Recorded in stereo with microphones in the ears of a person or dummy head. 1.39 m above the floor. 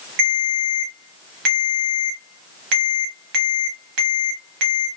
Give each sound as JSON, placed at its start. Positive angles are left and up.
{"t": 0.2, "sound": "a ringtone", "side_deg": -65, "distance_m": 1.0}